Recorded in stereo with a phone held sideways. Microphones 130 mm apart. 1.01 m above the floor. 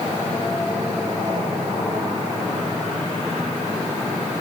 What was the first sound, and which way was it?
Only background noise.